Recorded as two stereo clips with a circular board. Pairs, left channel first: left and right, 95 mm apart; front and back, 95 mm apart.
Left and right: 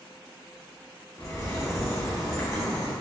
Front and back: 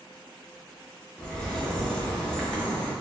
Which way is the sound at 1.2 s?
70° left.